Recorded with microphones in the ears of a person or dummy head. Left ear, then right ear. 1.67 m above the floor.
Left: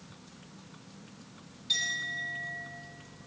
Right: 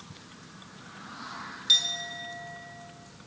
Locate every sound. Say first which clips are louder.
1.7 s a clink: right 6 dB; 40° right (ahead or behind), 1.9 m